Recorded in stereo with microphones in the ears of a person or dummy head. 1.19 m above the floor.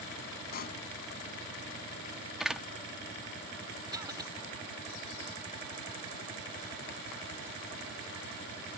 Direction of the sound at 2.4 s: Centre (ahead or behind).